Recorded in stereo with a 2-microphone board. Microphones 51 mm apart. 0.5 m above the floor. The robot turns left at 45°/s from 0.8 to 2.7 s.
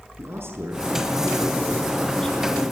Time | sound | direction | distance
0.2 | a man speaking | 125° right | 6.5 m